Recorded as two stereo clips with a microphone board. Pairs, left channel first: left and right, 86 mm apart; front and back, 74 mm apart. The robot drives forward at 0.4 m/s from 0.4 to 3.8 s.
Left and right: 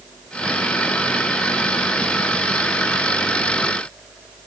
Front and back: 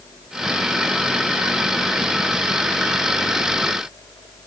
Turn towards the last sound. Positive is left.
No sound to turn to.